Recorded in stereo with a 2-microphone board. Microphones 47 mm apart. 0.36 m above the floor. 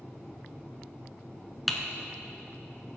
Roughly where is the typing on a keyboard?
Centre.